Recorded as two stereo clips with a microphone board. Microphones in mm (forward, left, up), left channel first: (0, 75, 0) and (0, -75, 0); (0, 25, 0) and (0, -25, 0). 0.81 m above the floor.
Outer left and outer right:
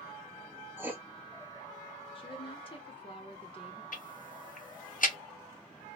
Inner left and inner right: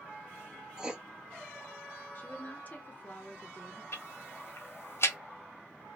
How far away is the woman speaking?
About 0.7 m.